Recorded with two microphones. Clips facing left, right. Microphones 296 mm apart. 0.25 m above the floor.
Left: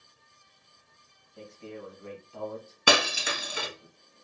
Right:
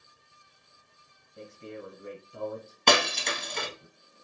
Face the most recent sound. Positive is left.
turn(degrees=5)  # may be behind; listen again after turning